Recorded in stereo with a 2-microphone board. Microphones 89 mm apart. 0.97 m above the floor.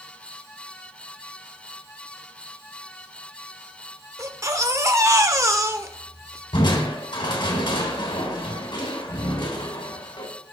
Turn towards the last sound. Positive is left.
turn(degrees=65)  # may be behind; listen again after turning